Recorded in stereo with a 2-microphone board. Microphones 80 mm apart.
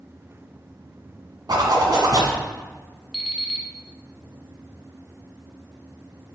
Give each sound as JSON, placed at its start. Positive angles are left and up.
{"t": 1.5, "sound": "a zipper", "side_deg": -60, "distance_m": 1.3}
{"t": 3.1, "sound": "an alarm clock", "side_deg": 0, "distance_m": 1.1}